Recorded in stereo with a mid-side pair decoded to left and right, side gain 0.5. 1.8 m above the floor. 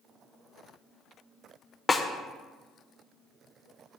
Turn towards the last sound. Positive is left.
turn(degrees=25)